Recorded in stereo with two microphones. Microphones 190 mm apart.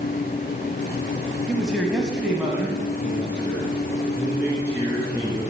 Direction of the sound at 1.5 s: Centre (ahead or behind).